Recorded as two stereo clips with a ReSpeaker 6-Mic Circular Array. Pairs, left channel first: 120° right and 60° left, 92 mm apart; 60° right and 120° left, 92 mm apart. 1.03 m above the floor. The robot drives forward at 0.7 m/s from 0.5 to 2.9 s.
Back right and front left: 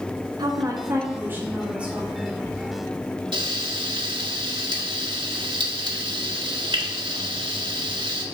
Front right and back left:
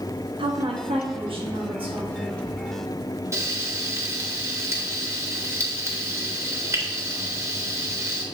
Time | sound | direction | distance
0.4 | a woman speaking | 105° left | 1.1 m
3.3 | frying | 65° left | 1.2 m